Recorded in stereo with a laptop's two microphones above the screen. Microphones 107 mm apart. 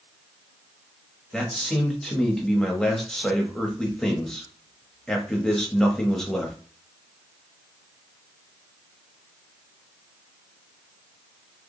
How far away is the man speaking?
About 1.4 m.